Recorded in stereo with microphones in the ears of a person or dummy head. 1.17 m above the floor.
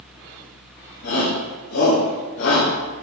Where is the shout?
80° left, 5 m.